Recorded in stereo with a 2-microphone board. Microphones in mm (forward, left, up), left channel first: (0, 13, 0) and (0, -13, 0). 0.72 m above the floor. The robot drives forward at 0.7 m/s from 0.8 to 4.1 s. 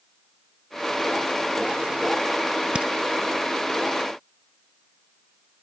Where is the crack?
45° right (ahead or behind).